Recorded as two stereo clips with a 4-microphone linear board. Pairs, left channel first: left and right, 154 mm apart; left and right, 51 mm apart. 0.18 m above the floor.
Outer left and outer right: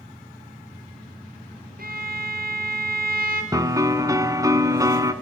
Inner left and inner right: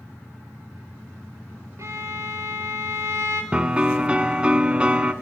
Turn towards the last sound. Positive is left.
turn(degrees=-20)  # may be behind; listen again after turning